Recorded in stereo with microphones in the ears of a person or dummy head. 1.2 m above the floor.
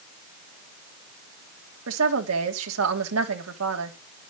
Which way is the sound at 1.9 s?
85° right.